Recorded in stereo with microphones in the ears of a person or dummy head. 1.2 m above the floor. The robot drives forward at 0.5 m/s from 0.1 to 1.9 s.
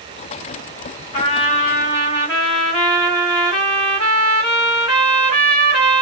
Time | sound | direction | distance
1.1 | a trumpet | 35° left (ahead or behind) | 1.2 m